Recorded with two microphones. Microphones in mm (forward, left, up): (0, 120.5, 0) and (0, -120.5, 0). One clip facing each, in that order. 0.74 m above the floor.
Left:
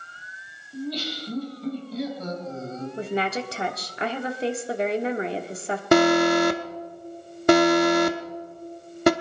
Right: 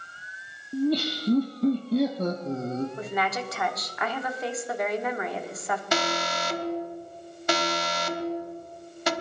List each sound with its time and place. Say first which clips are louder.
0.7 s laughter: right 7 dB; 60° right (ahead or behind), 1.3 m
3.0 s a woman speaking: left 4 dB; 30° left (ahead or behind), 1.4 m
5.9 s an alarm: left 14 dB; 60° left (ahead or behind), 1.0 m